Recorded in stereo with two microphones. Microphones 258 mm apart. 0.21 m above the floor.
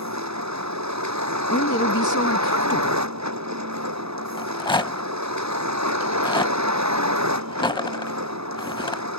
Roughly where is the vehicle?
Right.